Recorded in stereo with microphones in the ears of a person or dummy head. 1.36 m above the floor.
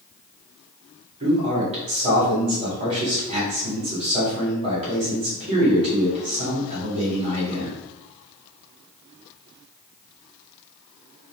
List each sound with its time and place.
1.2 s a man speaking: 35° right (ahead or behind), 1.9 m